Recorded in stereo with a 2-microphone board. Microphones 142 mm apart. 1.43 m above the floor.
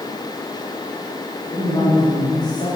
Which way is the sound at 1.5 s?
45° left (ahead or behind).